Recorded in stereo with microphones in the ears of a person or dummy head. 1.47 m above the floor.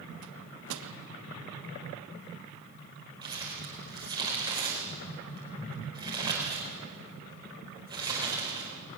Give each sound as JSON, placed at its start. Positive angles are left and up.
{"t": 0.2, "sound": "a microwave", "side_deg": -75, "distance_m": 1.6}
{"t": 3.2, "sound": "crumpling", "side_deg": -25, "distance_m": 4.5}